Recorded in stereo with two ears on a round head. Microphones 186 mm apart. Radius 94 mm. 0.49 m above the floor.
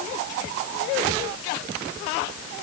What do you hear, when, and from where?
Only background noise.